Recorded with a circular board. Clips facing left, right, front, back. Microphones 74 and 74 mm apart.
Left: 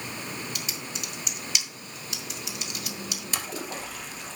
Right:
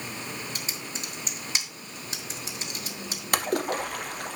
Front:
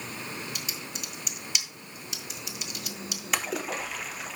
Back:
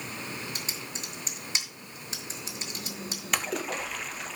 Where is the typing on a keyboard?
135° right, 1.5 m.